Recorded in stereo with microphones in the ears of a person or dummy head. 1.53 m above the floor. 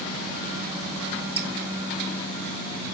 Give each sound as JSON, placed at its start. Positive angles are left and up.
{"t": 1.4, "sound": "dripping", "side_deg": -30, "distance_m": 1.0}